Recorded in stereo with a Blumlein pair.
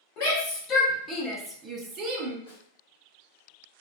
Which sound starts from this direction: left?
A snare drum, at 2.5 s.